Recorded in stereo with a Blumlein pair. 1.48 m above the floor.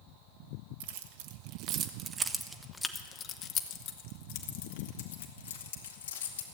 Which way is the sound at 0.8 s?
55° right.